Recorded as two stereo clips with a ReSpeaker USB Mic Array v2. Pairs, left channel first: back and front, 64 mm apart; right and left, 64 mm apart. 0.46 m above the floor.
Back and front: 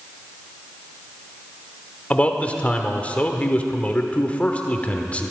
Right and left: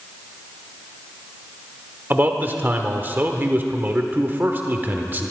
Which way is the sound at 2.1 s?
125° left.